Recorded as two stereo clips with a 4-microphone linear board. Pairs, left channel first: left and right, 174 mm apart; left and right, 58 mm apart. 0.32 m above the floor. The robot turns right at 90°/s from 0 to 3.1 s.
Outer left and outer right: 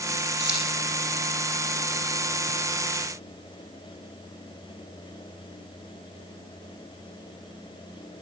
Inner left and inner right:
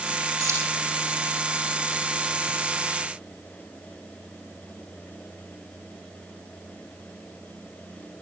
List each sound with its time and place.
0.4 s keys jangling: 85° right, 9.5 m; by 0.6 s 65° right (ahead or behind), 9.5 m